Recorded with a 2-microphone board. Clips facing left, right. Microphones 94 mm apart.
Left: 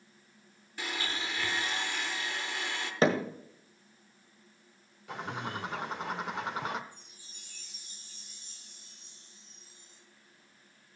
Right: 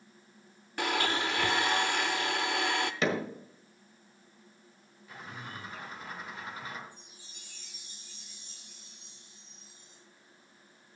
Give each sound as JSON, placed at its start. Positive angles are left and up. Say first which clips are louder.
{"t": 0.8, "sound": "a blender", "louder": "right 7 dB", "side_deg": -65, "distance_m": 0.6}
{"t": 3.0, "sound": "hammering", "louder": "left 6 dB", "side_deg": 40, "distance_m": 1.5}
{"t": 5.1, "sound": "a bird", "louder": "left 7 dB", "side_deg": 70, "distance_m": 0.8}
{"t": 6.9, "sound": "a chime", "louder": "right 2 dB", "side_deg": 45, "distance_m": 4.5}